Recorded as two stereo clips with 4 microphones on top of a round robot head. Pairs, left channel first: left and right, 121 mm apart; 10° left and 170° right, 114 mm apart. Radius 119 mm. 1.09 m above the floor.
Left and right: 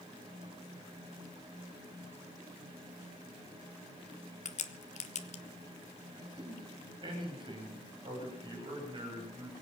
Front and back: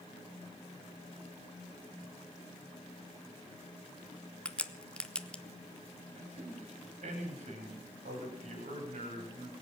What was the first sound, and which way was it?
A crack, 90° left.